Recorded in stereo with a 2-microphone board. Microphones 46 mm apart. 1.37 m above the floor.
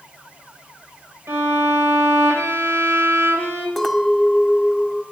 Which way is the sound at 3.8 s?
5° left (ahead or behind).